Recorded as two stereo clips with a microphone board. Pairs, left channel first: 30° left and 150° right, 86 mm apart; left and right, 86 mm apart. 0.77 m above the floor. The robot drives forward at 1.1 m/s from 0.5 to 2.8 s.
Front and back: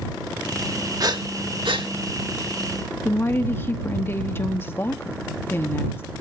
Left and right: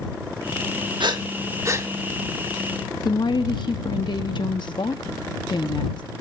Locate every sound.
1.0 s breathing: 110° right, 0.9 m; by 1.9 s 145° right, 1.5 m
3.0 s a woman speaking: 90° left, 0.9 m